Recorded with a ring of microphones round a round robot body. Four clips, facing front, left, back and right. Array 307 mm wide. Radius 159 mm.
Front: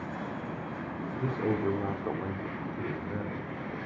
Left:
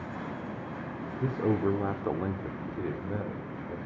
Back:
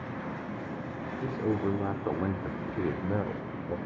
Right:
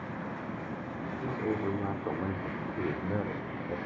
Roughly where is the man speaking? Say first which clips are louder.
Left 5 dB, even; left.